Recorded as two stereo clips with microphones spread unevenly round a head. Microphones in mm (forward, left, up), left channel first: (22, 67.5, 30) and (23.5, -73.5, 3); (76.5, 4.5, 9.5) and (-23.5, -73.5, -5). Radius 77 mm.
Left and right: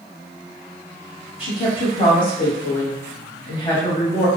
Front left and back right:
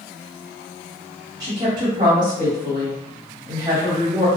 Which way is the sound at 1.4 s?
150° left.